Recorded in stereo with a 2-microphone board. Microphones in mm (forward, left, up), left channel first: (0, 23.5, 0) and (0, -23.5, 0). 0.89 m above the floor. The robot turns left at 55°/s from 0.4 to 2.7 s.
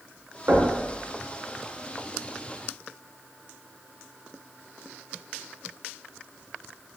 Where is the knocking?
60° right (ahead or behind), 0.9 m; by 0.7 s 50° right (ahead or behind), 0.9 m.